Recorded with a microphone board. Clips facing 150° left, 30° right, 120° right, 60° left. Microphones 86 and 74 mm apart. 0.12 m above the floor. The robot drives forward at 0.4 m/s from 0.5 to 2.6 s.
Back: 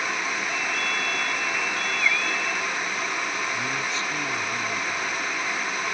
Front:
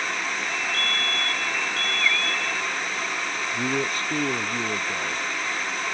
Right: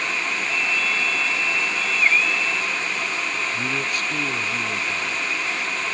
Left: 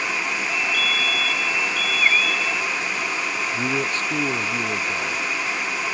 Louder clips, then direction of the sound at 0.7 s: Even, even; 50° right.